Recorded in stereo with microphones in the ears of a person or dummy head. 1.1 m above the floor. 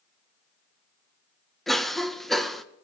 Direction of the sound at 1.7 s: Centre (ahead or behind).